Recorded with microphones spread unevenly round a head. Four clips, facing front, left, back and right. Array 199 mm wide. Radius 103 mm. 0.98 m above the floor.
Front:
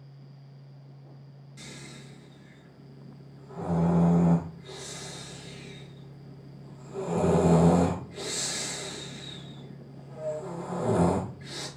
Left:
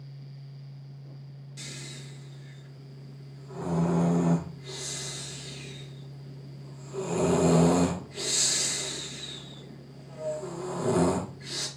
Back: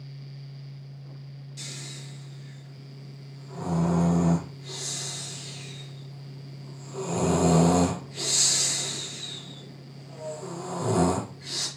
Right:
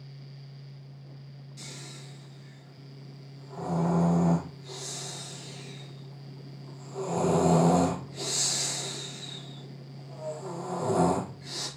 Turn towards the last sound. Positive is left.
turn(degrees=110)